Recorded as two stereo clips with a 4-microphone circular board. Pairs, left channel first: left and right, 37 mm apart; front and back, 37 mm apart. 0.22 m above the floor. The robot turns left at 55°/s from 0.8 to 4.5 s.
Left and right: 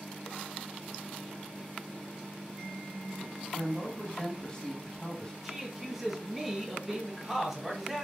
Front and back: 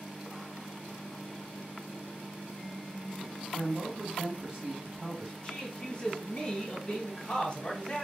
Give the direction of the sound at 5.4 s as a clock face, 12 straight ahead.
1 o'clock.